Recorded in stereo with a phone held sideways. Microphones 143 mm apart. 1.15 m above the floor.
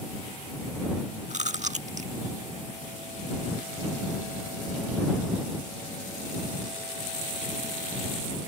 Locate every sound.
1.3 s chewing: 60° right (ahead or behind)